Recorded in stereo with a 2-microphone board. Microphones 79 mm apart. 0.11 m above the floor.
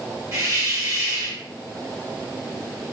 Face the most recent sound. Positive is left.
turn(degrees=-35)  # may be behind; listen again after turning